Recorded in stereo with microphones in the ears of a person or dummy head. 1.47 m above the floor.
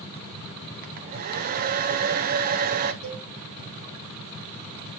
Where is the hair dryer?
50° right (ahead or behind), 0.5 m.